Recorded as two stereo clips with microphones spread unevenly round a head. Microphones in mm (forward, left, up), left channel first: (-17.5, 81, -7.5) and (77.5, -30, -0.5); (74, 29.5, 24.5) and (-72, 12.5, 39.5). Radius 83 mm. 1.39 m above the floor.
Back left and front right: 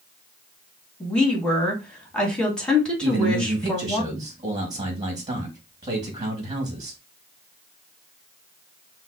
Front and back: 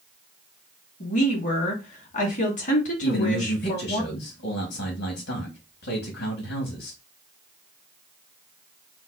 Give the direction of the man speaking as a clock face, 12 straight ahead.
11 o'clock.